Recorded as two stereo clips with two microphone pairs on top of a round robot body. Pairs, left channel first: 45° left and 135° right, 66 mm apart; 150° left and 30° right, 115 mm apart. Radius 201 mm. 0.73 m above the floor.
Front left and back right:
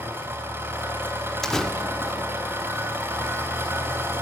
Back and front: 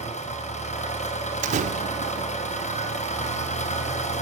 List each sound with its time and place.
0.0 s an engine running: 170° left, 3.5 m
1.4 s a door slam: 35° right, 1.1 m